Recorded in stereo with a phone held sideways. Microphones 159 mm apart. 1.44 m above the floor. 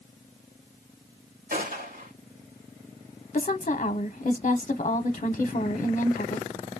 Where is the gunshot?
65° right (ahead or behind), 3 m.